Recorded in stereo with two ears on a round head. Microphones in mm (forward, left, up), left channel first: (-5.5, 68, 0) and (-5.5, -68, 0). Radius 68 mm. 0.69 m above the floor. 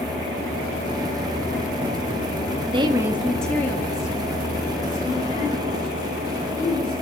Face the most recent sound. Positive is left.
turn(degrees=40)  # may be behind; listen again after turning